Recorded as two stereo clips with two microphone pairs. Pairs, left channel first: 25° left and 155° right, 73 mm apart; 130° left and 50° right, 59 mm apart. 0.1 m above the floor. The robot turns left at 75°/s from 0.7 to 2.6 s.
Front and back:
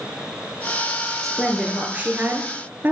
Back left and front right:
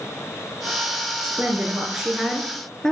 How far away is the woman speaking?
About 1.3 m.